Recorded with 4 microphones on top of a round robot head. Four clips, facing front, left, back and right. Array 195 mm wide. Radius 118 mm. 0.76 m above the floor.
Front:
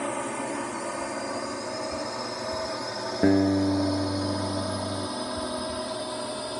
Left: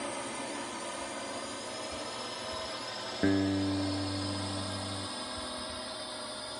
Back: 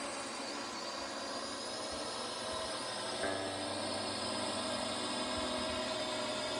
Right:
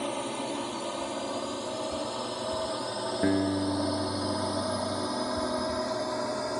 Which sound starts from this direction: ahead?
A guitar, at 3.2 s.